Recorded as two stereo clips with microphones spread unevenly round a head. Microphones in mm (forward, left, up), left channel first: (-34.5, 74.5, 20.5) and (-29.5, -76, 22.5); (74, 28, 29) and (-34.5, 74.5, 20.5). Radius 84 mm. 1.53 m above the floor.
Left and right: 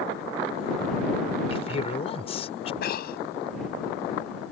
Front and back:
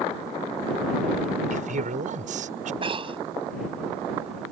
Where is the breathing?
110° left.